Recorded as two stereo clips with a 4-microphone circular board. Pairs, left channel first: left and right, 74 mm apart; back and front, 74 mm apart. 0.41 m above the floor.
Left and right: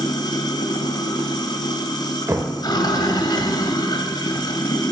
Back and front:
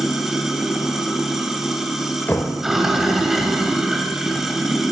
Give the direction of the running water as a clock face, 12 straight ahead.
9 o'clock.